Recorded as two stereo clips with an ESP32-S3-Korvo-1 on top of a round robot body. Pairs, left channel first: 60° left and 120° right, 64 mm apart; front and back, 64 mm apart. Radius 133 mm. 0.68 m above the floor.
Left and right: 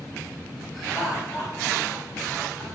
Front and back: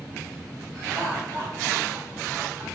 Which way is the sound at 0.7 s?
150° left.